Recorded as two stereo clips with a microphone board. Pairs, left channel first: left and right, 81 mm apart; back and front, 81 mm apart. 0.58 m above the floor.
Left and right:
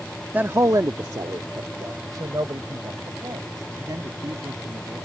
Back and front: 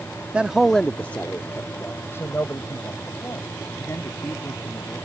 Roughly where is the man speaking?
Ahead right.